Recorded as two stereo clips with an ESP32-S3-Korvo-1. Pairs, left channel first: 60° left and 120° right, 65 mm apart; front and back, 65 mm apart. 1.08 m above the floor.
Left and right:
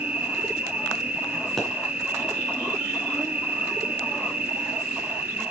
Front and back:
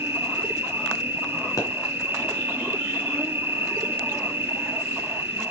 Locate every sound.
0.0 s an insect: 170° right, 0.8 m
1.6 s a pop: 25° right, 3 m